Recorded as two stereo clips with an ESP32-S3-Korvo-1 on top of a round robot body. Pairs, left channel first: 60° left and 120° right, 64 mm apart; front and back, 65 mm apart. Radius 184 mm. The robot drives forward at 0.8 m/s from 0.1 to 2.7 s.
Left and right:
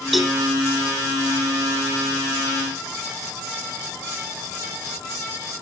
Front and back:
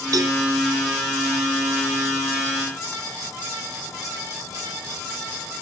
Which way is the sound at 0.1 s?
150° left.